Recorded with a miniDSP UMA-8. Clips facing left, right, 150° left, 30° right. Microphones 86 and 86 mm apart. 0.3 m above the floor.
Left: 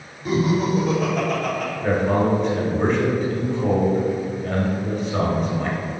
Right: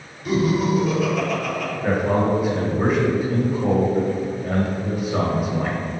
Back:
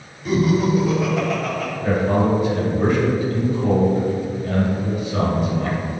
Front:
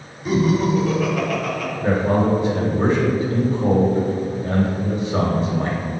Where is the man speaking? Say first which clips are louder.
Even, even; 10° right, 1.3 m.